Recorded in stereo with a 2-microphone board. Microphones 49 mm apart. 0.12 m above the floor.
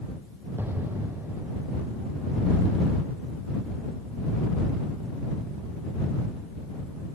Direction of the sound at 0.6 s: 45° right (ahead or behind).